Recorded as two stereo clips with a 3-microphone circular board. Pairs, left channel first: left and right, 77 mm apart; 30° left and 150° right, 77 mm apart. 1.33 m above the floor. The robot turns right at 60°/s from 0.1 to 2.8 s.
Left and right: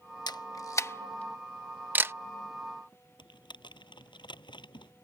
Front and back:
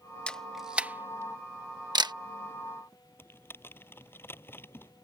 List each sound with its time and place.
0.3 s a camera shutter: 105° left; by 2.1 s 145° right
3.2 s typing on a keyboard: 90° left